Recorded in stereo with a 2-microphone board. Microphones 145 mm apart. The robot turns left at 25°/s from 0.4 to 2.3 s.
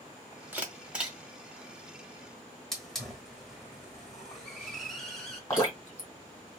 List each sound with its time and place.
0.5 s a camera shutter: 15° right (ahead or behind), 1.4 m; by 1.2 s 5° right (ahead or behind), 1.4 m
2.7 s a hiss: 5° left (ahead or behind), 1.4 m
5.5 s dripping: 20° left (ahead or behind), 2 m